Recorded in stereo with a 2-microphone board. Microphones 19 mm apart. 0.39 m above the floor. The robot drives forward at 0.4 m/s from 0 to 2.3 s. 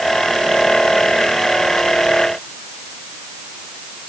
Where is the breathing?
No breathing in this recording.